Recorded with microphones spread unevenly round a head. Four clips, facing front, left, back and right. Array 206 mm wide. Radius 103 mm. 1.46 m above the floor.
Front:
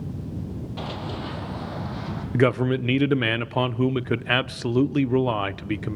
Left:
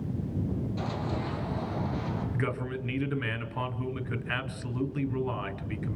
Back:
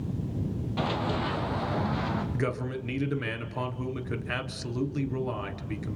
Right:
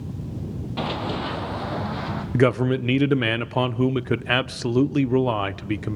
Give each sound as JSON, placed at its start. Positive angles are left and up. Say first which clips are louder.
{"t": 0.8, "sound": "running footsteps", "louder": "right 6 dB, back 5 dB", "azimuth_deg": -90, "distance_m": 3.0}
{"t": 2.3, "sound": "a man speaking", "louder": "right 13 dB, front 10 dB", "azimuth_deg": -55, "distance_m": 1.0}